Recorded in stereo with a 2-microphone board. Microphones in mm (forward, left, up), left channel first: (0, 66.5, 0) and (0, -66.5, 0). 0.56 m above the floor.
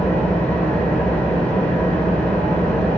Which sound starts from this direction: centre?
An engine running, at 0.0 s.